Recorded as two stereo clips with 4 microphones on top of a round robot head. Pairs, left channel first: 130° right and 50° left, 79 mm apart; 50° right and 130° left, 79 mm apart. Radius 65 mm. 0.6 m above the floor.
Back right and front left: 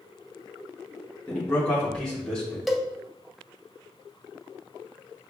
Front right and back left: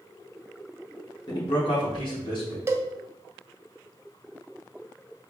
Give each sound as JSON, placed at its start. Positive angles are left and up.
{"t": 1.3, "sound": "a man speaking", "azimuth_deg": -55, "distance_m": 1.3}
{"t": 2.7, "sound": "a cowbell", "azimuth_deg": 140, "distance_m": 0.6}